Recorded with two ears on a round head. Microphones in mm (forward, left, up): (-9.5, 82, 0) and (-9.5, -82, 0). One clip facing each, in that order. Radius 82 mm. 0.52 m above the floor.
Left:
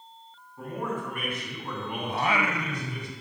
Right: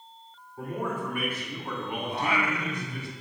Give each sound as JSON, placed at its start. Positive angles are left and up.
{"t": 0.6, "sound": "a man speaking", "side_deg": -15, "distance_m": 4.0}
{"t": 2.1, "sound": "singing", "side_deg": 70, "distance_m": 0.6}